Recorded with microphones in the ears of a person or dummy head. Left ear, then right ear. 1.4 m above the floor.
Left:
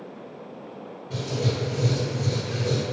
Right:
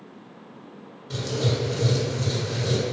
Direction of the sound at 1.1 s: 70° right (ahead or behind).